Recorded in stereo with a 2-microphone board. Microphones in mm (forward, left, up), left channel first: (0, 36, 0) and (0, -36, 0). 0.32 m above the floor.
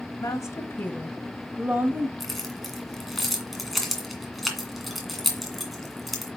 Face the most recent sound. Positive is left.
turn(degrees=0)  # may be behind; listen again after turning